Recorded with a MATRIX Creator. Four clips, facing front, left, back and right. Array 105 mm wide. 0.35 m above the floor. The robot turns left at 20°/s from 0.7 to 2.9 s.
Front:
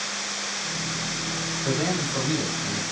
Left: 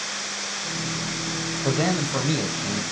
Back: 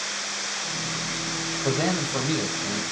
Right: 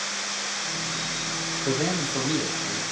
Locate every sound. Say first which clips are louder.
1.6 s a man speaking: left 3 dB, back 1 dB; 125° left, 1.3 m; by 2.8 s 100° left, 1.3 m